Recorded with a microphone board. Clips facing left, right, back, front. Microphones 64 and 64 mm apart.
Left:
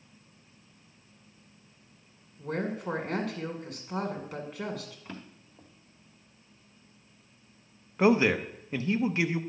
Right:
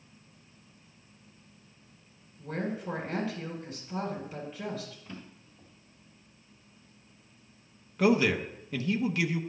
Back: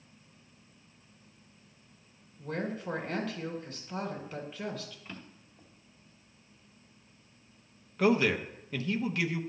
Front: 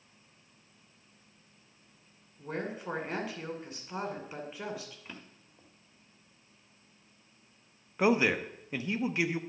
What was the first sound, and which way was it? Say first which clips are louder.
A woman speaking: left 2 dB, back 2 dB; 70° left.